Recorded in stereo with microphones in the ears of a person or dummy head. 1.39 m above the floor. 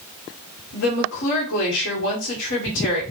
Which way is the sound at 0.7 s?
65° left (ahead or behind).